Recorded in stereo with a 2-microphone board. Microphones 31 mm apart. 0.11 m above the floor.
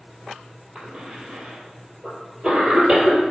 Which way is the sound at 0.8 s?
25° right (ahead or behind).